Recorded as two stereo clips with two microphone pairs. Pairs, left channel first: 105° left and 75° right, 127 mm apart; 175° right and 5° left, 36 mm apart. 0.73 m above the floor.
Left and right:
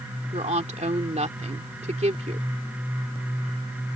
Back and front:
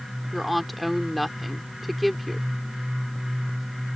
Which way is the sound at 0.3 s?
85° right.